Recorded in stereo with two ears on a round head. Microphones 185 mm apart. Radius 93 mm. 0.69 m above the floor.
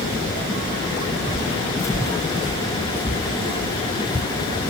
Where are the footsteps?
15° left (ahead or behind), 0.7 m; by 4.7 s 10° left (ahead or behind), 2.5 m.